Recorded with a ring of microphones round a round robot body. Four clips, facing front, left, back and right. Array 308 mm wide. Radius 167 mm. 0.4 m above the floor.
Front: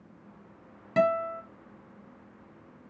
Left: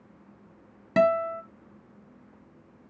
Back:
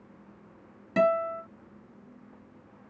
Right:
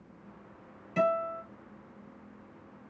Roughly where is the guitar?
Left.